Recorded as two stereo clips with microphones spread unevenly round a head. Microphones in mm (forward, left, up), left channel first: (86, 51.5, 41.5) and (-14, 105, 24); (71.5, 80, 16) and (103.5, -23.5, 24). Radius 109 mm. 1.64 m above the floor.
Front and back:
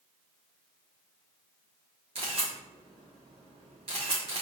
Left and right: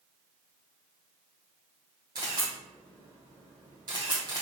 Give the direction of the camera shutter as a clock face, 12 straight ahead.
5 o'clock.